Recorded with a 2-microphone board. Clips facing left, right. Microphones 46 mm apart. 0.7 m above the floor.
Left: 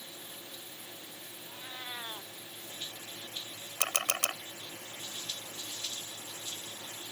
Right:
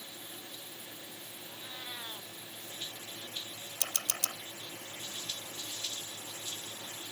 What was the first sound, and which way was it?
A cat meowing, 20° left (ahead or behind).